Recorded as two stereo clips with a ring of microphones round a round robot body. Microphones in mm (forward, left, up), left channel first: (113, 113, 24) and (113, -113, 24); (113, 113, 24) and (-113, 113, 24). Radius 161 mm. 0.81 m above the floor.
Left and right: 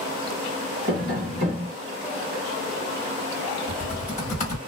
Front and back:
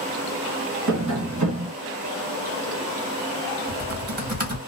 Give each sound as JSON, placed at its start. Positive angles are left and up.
{"t": 0.9, "sound": "tapping", "azimuth_deg": -160, "distance_m": 1.5}
{"t": 3.7, "sound": "typing on a keyboard", "azimuth_deg": 145, "distance_m": 1.4}